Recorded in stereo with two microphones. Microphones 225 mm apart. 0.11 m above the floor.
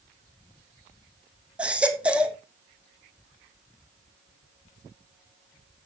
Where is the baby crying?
5° right (ahead or behind), 1.6 m.